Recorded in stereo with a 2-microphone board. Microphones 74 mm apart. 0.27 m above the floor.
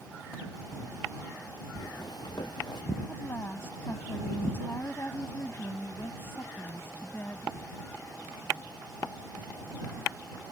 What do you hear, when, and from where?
1.8 s footsteps: 65° left (ahead or behind); by 2.8 s 70° left (ahead or behind)
3.1 s a woman speaking: 35° left (ahead or behind)